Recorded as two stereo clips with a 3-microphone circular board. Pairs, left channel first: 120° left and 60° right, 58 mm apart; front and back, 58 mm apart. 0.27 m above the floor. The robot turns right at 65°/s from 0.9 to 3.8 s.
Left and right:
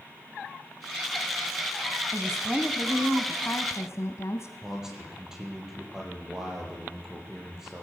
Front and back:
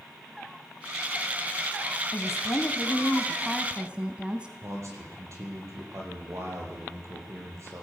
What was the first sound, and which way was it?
A woman speaking, 5° left.